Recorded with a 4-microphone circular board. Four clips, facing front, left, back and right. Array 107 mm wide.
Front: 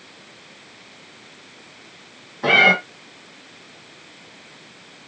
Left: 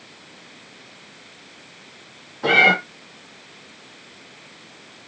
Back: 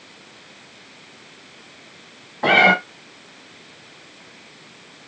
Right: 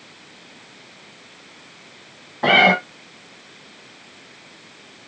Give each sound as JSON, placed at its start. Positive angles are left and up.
{"t": 2.4, "sound": "a cat meowing", "azimuth_deg": -130, "distance_m": 2.5}